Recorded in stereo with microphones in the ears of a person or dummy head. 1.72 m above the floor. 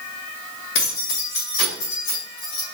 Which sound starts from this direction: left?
Keys jangling, at 0.8 s.